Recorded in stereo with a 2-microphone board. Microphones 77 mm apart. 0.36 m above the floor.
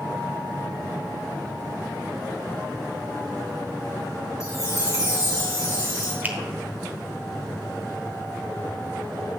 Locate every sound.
4.4 s a chime: 40° left (ahead or behind), 2.5 m
6.2 s a finger snap: 25° right (ahead or behind), 1.1 m